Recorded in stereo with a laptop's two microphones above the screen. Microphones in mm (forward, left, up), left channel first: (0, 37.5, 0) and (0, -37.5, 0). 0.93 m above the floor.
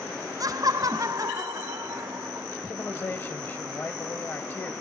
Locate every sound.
0.4 s laughter: 50° right (ahead or behind), 1.0 m; by 2.5 s 45° right (ahead or behind), 3 m
2.7 s a man speaking: 30° left (ahead or behind), 1.1 m